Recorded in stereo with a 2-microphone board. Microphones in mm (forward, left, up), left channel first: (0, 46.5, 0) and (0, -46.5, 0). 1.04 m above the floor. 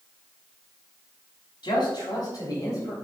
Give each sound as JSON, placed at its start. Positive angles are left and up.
{"t": 1.6, "sound": "a man speaking", "side_deg": 55, "distance_m": 2.5}